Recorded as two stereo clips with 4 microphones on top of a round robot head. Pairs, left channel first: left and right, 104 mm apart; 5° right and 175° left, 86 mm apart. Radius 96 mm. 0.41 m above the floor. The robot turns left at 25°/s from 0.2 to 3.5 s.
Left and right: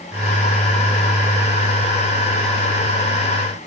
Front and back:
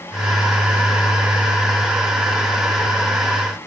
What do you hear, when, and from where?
Only background noise.